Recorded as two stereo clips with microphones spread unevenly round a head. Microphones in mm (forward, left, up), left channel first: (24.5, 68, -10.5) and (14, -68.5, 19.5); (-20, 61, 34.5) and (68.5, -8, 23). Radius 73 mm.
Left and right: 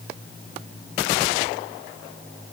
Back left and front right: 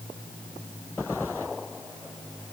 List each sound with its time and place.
Only background noise.